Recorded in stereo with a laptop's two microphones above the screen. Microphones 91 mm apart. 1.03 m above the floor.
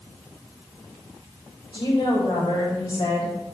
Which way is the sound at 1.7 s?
50° left (ahead or behind).